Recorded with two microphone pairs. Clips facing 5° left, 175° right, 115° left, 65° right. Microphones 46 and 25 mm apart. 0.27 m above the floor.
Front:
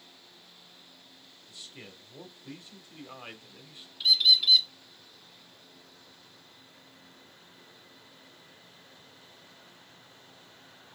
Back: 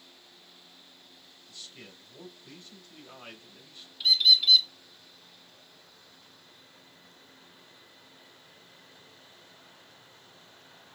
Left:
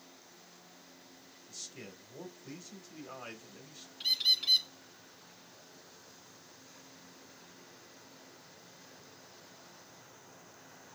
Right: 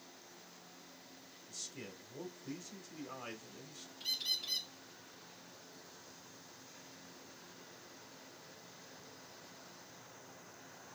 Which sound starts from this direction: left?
A bird, at 4.0 s.